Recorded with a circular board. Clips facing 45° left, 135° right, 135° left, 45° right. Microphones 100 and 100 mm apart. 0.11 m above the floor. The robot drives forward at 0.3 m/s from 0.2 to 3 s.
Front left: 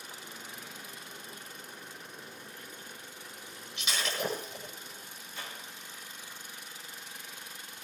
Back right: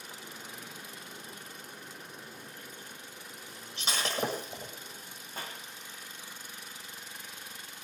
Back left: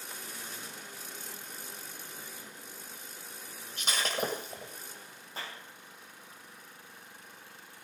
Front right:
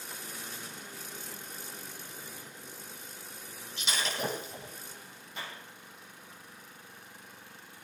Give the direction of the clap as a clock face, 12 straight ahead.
6 o'clock.